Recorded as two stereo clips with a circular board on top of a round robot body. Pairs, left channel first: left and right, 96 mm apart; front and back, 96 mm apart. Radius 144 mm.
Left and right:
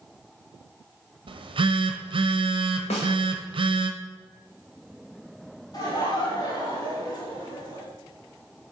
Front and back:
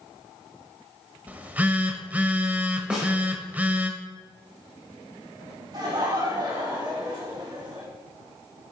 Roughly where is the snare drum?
Left.